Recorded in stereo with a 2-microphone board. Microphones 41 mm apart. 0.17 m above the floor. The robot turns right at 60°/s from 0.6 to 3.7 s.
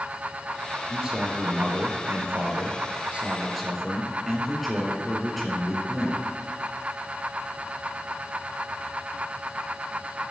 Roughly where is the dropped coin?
No dropped coin in this recording.